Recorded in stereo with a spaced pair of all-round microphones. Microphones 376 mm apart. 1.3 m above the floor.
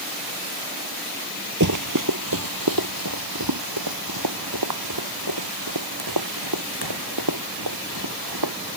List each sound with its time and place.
1.6 s running footsteps: 55° right (ahead or behind); by 8.5 s 80° right